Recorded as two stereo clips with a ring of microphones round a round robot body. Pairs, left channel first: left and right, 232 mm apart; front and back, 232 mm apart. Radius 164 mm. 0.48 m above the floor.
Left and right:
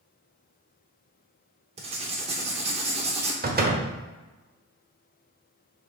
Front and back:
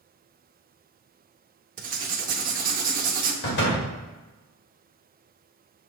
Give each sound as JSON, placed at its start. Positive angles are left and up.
{"t": 1.8, "sound": "writing", "azimuth_deg": -145, "distance_m": 0.7}
{"t": 3.4, "sound": "a door slam", "azimuth_deg": -45, "distance_m": 1.3}